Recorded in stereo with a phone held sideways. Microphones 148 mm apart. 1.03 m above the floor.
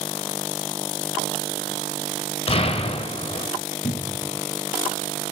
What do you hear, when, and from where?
2.5 s an explosion: 40° left (ahead or behind), 1.4 m
3.8 s a cupboard door: 70° left (ahead or behind), 0.9 m